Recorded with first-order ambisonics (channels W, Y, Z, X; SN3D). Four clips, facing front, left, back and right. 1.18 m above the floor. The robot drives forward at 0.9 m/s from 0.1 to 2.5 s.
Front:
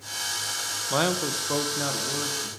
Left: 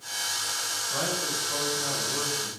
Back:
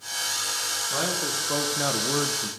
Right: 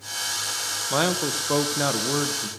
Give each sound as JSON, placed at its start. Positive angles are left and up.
{"t": 0.9, "sound": "a man speaking", "azimuth_deg": -55, "distance_m": 1.2}